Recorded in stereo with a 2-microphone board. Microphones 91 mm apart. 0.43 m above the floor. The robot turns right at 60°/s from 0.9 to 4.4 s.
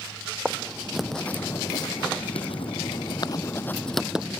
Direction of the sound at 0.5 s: 10° right (ahead or behind).